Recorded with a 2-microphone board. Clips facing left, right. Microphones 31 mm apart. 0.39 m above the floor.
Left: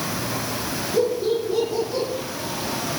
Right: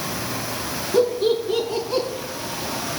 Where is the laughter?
70° right (ahead or behind), 5.5 m; by 2.1 s 60° right (ahead or behind), 5.5 m.